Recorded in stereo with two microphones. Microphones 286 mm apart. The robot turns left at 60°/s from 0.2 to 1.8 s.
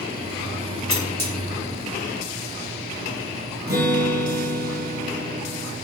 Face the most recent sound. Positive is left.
turn(degrees=-35)  # may be behind; listen again after turning